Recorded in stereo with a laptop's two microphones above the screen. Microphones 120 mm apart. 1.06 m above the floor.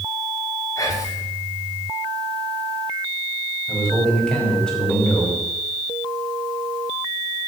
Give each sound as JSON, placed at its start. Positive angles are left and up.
{"t": 0.8, "sound": "whispering", "side_deg": 25, "distance_m": 3.5}
{"t": 3.7, "sound": "a man speaking", "side_deg": 5, "distance_m": 5.5}